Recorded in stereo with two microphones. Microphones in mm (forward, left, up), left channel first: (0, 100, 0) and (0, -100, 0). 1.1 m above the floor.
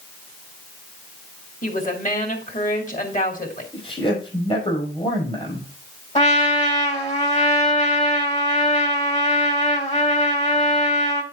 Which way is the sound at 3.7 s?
30° left (ahead or behind).